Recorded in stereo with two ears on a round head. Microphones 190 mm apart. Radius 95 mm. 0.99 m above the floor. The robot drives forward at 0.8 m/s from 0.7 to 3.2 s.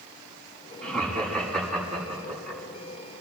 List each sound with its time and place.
0.8 s laughter: 5° left (ahead or behind), 7 m